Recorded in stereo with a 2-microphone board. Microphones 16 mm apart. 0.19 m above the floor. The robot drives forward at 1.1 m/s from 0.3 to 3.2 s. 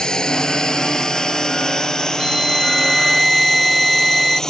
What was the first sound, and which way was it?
A drone, 50° left (ahead or behind).